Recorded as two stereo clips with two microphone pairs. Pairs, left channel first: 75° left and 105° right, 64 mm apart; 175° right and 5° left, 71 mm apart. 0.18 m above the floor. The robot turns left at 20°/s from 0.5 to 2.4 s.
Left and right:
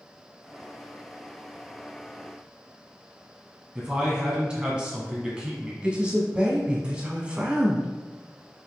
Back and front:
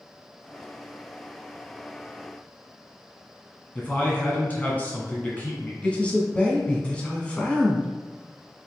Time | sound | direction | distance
3.8 | a man speaking | 160° right | 1.5 m
5.8 | a man speaking | 145° right | 1.0 m